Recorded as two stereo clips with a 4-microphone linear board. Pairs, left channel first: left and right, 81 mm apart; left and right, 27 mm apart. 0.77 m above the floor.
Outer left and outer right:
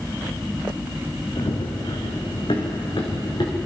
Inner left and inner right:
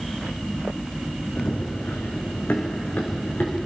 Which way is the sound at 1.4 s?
70° left (ahead or behind).